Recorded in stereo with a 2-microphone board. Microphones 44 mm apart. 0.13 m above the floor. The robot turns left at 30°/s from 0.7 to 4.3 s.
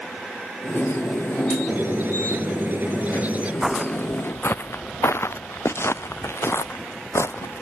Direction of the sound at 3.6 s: 10° right (ahead or behind).